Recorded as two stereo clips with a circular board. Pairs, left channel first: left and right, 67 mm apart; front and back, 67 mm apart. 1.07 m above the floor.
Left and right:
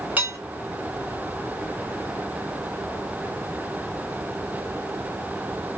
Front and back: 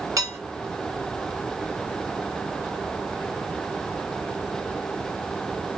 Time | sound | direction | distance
0.2 | dishes clattering | 155° right | 1.5 m